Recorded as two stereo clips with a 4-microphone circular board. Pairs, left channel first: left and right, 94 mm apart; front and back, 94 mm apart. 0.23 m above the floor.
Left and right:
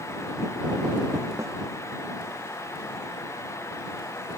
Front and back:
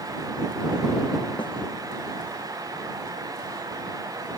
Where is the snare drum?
35° right.